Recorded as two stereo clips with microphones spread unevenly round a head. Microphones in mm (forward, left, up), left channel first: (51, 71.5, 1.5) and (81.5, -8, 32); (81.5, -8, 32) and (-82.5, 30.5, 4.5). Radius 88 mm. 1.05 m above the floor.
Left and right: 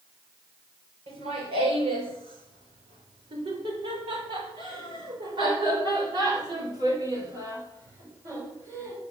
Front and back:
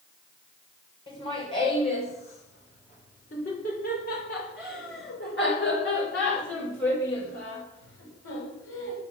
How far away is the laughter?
About 5 m.